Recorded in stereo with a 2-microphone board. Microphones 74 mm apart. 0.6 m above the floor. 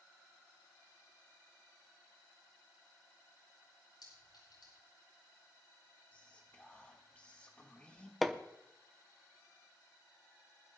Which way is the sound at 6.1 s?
20° left (ahead or behind).